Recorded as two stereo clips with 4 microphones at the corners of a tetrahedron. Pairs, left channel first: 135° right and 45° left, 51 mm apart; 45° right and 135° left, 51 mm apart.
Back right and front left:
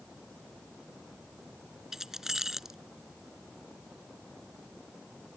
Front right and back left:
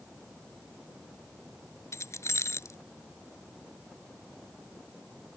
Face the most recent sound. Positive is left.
turn(degrees=-35)